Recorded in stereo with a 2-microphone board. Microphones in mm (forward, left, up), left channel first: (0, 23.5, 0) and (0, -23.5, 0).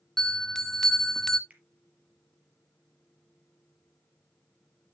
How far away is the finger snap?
About 3.5 m.